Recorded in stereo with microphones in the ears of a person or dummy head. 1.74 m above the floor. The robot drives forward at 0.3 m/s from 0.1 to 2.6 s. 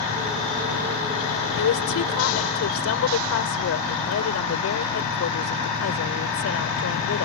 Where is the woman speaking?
80° left.